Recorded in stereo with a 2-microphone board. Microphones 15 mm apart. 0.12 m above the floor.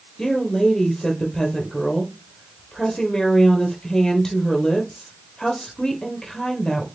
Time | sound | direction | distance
0.2 | a woman speaking | 45° left (ahead or behind) | 3 m